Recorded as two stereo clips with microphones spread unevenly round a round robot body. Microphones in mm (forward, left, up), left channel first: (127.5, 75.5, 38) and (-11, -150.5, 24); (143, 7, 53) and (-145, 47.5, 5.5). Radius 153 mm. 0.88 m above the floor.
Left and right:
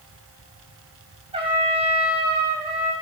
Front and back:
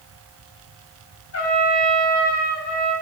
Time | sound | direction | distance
1.3 | a trumpet | 50° right | 6 m